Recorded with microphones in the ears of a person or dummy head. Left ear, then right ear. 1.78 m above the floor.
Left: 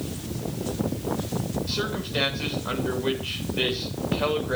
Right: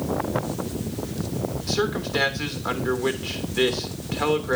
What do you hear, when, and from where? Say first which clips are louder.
1.7 s a man speaking: right 6 dB; 45° right (ahead or behind), 2.5 m